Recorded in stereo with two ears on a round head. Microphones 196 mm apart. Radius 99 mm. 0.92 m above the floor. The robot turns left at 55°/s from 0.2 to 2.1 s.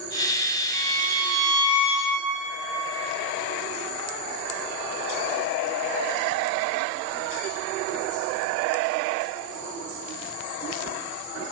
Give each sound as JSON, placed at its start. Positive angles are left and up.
{"t": 0.7, "sound": "a violin", "azimuth_deg": 170, "distance_m": 4.5}